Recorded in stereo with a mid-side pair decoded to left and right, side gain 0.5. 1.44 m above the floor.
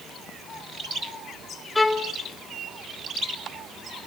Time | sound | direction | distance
1.8 | a violin | 20° left | 1.4 m